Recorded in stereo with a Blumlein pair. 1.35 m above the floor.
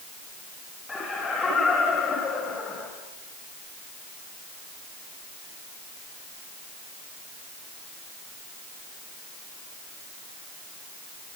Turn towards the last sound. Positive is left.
turn(degrees=20)